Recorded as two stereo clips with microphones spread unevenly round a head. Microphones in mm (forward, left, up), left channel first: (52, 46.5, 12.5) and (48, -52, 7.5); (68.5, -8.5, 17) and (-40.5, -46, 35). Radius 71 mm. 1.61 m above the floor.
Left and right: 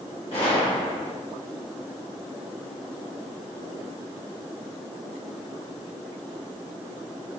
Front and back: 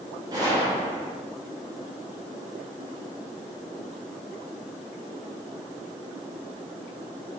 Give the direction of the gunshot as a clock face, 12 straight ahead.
7 o'clock.